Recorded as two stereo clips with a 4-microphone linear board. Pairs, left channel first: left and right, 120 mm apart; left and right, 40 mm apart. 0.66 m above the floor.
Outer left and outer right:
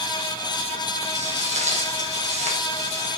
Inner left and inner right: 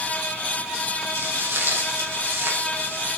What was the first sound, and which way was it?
Footsteps, 80° right.